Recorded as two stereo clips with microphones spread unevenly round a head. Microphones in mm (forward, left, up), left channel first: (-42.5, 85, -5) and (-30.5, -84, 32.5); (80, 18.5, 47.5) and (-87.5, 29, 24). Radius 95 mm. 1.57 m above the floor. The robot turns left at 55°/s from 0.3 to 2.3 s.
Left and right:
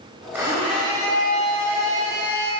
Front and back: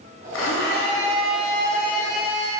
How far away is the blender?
About 4 m.